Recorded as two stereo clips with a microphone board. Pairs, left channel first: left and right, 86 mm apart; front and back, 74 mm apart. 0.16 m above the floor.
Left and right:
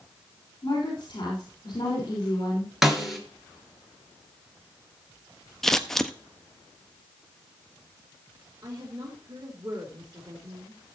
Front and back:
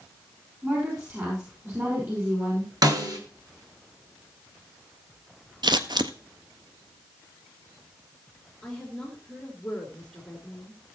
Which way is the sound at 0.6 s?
130° left.